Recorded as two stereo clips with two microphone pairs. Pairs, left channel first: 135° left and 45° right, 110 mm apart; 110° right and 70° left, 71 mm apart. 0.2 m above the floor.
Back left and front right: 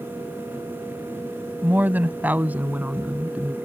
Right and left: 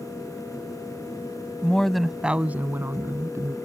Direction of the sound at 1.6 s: 70° right.